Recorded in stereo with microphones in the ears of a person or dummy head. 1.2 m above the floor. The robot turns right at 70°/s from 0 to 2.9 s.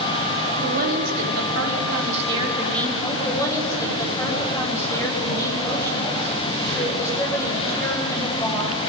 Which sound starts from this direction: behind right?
A woman speaking, at 0.6 s.